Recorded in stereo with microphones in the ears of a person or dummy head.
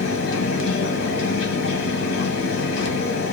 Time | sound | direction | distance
0.0 | a fan | 65° left (ahead or behind) | 1.1 m